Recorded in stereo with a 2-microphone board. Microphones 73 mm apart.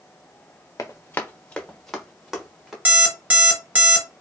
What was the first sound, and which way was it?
Running footsteps, 45° left (ahead or behind).